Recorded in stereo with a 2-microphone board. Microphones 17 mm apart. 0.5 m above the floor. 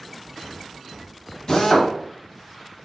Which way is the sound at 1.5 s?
40° left (ahead or behind).